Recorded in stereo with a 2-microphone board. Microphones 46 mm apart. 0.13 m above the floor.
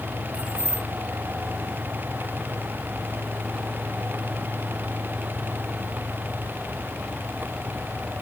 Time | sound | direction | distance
0.3 | keys jangling | 25° right (ahead or behind) | 1.4 m